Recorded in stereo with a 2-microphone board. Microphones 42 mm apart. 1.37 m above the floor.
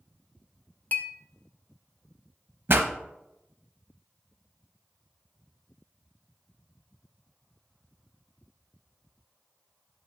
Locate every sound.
0.9 s a clink: 45° left (ahead or behind), 0.6 m
2.7 s a pop: 55° right (ahead or behind), 0.8 m